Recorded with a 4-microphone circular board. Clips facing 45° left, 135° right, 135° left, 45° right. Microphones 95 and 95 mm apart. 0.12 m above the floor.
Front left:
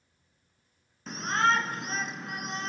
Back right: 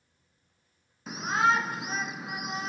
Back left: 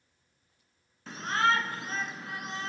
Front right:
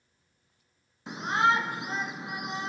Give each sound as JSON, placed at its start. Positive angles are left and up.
{"t": 1.1, "sound": "a shout", "azimuth_deg": -70, "distance_m": 1.1}